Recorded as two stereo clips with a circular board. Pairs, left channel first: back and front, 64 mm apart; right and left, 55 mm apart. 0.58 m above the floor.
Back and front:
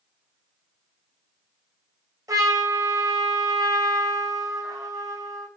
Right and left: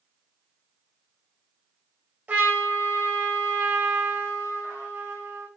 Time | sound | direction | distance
2.3 | a trumpet | 25° left | 3.5 m